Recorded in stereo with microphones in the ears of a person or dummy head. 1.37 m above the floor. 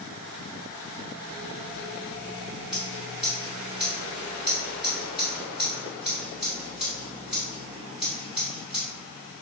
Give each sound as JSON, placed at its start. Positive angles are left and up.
{"t": 2.7, "sound": "scissors", "side_deg": 0, "distance_m": 1.7}